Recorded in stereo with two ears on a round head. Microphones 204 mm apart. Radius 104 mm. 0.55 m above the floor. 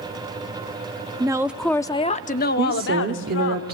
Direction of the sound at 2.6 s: 45° right (ahead or behind).